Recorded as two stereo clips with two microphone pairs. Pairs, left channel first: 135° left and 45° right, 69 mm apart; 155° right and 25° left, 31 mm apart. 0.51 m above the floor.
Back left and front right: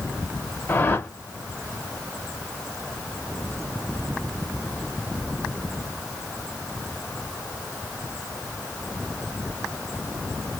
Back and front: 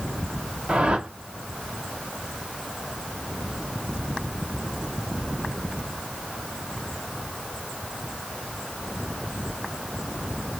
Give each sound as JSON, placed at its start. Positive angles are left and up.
{"t": 0.7, "sound": "a whoosh", "azimuth_deg": 80, "distance_m": 0.7}